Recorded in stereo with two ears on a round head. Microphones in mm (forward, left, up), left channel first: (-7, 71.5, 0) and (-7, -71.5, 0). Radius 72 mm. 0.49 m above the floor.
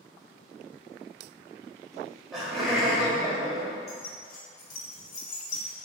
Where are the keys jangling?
60° left (ahead or behind), 2.5 m.